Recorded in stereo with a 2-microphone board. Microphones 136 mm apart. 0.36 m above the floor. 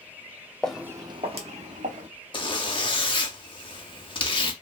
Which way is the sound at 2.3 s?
40° left (ahead or behind).